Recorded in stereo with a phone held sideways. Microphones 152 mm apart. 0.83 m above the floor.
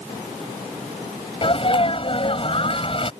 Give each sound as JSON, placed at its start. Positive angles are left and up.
{"t": 1.4, "sound": "a sneeze", "side_deg": 40}